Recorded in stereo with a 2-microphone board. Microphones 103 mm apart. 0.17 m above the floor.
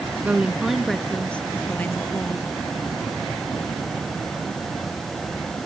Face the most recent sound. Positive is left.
turn(degrees=20)  # may be behind; listen again after turning